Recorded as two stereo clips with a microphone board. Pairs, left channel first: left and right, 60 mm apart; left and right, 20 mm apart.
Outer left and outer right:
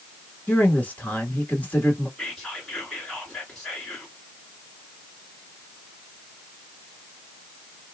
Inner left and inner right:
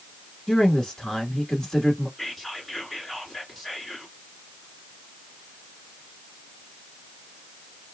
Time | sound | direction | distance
0.5 | a woman speaking | 25° left (ahead or behind) | 1.3 m
2.2 | whispering | 10° left (ahead or behind) | 2 m